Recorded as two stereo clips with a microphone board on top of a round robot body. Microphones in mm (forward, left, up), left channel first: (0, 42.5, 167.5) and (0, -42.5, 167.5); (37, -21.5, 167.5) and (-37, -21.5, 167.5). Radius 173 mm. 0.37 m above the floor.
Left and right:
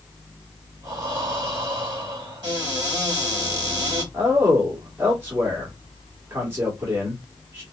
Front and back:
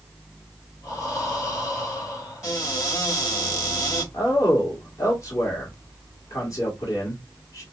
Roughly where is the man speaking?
Ahead right.